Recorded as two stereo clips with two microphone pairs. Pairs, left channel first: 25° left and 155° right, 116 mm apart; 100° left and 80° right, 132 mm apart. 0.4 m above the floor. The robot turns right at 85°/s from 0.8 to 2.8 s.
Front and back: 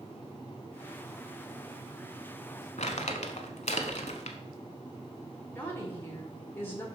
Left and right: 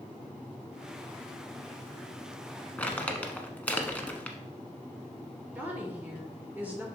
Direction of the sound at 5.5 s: 20° right.